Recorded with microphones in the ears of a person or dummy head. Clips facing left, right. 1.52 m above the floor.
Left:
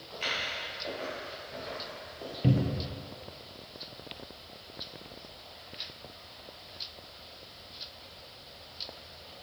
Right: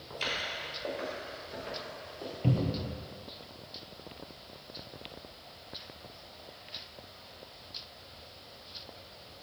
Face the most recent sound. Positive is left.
turn(degrees=20)  # may be behind; listen again after turning